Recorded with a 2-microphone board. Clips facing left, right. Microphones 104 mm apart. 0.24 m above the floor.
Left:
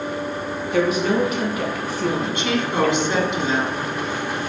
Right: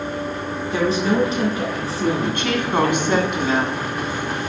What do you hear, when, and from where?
0.7 s a woman speaking: 30° right (ahead or behind), 2.5 m
2.2 s a woman speaking: 50° right (ahead or behind), 1.9 m